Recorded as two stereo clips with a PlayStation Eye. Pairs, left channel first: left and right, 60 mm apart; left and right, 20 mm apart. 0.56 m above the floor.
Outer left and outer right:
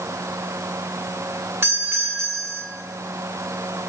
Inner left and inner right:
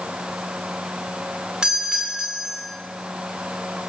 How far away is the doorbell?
About 2.5 m.